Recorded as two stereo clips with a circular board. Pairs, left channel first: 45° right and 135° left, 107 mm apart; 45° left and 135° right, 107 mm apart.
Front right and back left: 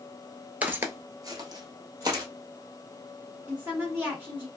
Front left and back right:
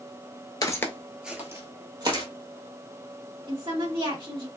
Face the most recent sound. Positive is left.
turn(degrees=-155)